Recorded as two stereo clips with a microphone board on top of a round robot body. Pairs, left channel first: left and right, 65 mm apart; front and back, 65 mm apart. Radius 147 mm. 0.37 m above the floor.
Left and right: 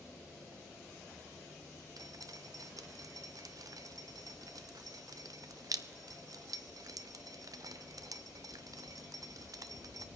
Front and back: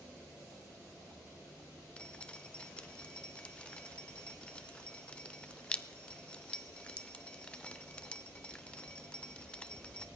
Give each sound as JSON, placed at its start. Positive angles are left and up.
{"t": 2.0, "sound": "dripping", "azimuth_deg": -70, "distance_m": 0.8}